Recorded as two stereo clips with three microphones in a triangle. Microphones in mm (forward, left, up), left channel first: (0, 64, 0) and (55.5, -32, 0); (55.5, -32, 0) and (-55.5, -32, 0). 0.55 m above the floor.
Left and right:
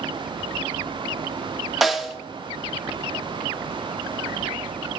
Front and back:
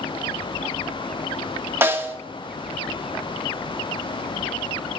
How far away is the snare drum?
About 0.8 m.